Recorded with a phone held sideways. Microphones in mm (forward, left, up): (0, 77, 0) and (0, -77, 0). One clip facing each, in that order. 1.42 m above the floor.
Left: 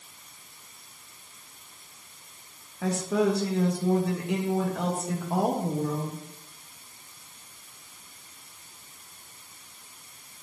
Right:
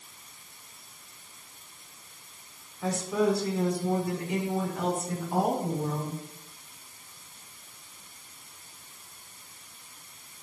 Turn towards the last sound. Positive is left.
turn(degrees=75)  # may be behind; listen again after turning